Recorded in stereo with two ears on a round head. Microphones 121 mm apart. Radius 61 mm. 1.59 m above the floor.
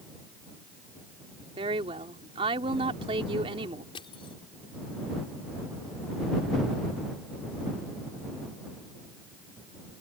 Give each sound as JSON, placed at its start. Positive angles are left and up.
{"t": 1.6, "sound": "a woman speaking", "side_deg": -40}
{"t": 4.0, "sound": "crushing", "side_deg": 40}